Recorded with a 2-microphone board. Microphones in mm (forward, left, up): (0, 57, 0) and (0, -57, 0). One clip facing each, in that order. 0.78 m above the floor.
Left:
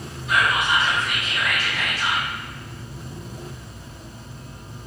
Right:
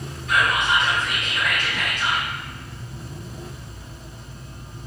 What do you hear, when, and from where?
0.3 s whispering: 5° left (ahead or behind), 1.0 m